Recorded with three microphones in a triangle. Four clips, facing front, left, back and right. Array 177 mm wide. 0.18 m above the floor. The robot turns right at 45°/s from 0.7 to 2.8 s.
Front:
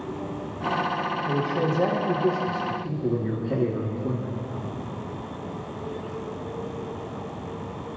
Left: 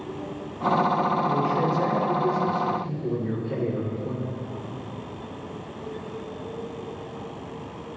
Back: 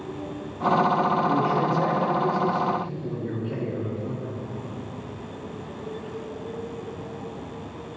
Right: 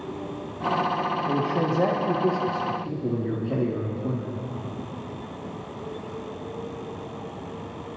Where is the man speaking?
120° right, 3.5 m; by 4.3 s 50° right, 3.5 m.